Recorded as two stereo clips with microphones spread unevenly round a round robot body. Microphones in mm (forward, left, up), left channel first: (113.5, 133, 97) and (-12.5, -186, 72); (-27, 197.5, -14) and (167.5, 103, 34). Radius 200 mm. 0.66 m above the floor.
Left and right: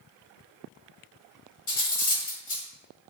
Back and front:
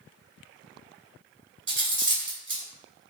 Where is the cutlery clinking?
15° left, 1.7 m.